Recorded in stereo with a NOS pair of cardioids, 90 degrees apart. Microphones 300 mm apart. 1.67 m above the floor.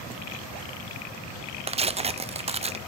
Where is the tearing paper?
20° right, 0.6 m.